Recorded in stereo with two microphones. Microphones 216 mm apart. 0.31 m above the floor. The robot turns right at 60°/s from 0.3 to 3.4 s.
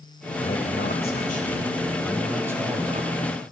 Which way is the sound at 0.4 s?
70° left.